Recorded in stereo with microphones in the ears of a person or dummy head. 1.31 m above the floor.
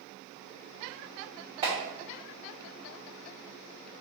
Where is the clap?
30° right (ahead or behind), 2 m.